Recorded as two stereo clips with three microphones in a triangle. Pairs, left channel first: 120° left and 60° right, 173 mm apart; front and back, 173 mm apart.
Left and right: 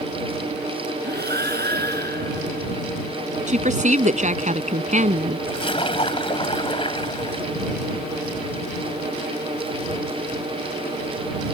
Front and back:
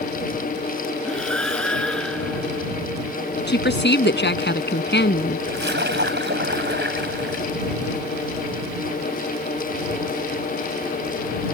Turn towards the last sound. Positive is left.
turn(degrees=180)